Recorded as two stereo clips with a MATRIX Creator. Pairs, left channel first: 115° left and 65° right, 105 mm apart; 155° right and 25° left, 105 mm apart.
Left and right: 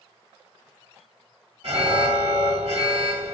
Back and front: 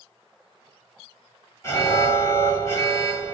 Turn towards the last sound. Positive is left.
turn(degrees=-95)